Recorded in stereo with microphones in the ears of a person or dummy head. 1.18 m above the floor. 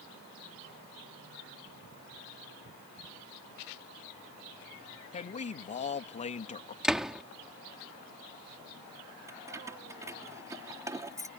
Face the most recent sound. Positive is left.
turn(degrees=-20)  # may be behind; listen again after turning